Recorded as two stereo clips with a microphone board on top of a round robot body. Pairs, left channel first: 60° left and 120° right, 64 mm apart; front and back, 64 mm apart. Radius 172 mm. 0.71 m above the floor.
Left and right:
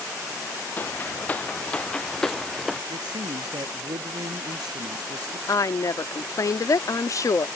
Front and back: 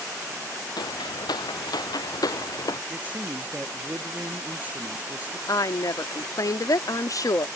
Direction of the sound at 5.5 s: 25° left.